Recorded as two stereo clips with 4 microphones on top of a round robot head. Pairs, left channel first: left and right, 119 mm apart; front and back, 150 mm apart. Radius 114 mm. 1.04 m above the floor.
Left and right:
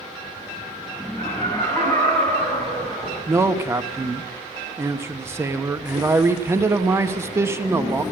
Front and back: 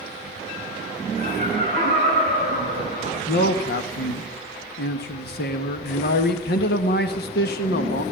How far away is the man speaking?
About 1.1 m.